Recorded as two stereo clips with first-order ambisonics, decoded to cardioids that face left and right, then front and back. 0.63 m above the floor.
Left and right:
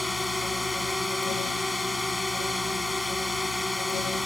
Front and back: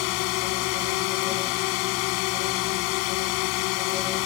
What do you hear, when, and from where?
0.0 s a drone: 5° left